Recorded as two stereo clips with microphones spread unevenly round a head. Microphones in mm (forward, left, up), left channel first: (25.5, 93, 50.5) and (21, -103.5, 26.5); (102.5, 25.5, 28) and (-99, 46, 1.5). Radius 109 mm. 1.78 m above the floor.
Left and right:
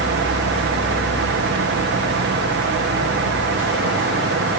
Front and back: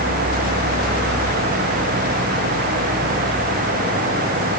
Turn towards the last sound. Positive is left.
No sound to turn to.